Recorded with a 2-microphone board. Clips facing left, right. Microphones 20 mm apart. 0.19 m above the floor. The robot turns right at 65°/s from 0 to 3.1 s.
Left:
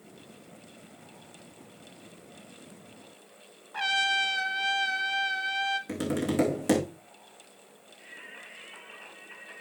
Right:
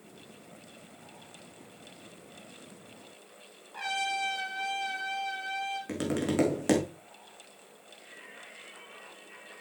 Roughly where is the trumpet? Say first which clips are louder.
Left 6 dB; left.